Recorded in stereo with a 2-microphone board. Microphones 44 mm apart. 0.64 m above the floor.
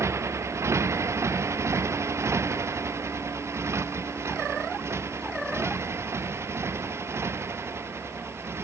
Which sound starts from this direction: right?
A motorcycle, at 0.0 s.